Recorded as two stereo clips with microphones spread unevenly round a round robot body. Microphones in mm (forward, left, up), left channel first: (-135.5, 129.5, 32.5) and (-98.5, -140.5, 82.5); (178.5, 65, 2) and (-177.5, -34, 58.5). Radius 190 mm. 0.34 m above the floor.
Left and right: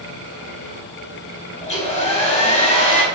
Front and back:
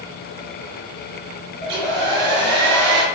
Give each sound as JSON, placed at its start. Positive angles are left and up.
{"t": 1.6, "sound": "a hair dryer", "azimuth_deg": 150, "distance_m": 0.7}